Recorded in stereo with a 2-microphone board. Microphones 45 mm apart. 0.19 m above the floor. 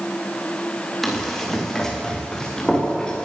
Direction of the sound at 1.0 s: 5° left (ahead or behind).